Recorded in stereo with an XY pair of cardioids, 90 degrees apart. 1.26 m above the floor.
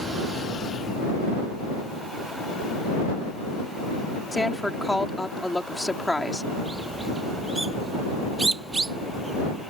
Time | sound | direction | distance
4.3 | a woman speaking | 5° left | ?
6.5 | a bird | 25° right | ?